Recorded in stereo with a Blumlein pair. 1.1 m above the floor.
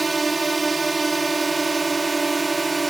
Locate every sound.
0.0 s a drone: 10° right